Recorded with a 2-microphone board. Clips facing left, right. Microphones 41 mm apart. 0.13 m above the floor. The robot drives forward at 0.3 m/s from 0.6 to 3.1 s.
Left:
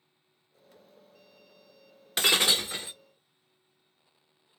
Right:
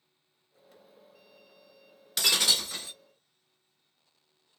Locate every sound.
2.2 s breaking glass: 30° left (ahead or behind), 0.5 m; by 2.9 s 20° left (ahead or behind), 0.7 m